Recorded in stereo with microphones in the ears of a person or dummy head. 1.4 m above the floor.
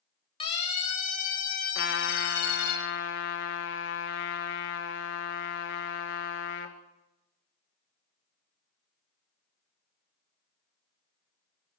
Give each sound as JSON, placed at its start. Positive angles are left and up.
{"t": 0.4, "sound": "a siren", "side_deg": 35, "distance_m": 2.5}
{"t": 1.8, "sound": "a trumpet", "side_deg": 65, "distance_m": 1.7}